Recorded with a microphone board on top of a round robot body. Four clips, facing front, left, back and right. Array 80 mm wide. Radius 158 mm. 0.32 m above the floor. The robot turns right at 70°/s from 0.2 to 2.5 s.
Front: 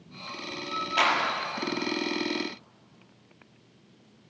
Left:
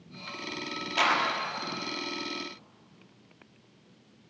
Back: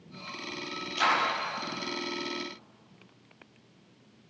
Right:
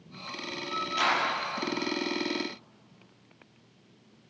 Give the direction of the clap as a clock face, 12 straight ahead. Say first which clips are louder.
Left 2 dB, front 1 dB; 12 o'clock.